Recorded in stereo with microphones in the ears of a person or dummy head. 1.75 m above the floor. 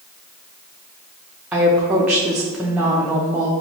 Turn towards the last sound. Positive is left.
turn(degrees=-10)  # may be behind; listen again after turning